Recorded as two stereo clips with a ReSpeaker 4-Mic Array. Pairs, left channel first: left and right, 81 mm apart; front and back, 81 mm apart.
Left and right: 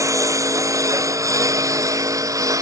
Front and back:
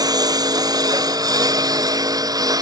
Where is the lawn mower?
140° right.